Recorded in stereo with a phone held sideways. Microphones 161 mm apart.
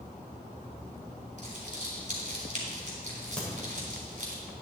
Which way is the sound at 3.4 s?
5° left (ahead or behind).